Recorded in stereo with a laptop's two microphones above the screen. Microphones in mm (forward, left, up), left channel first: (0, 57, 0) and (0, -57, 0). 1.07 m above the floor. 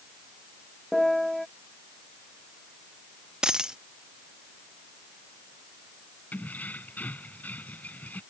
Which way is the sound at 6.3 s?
15° left (ahead or behind).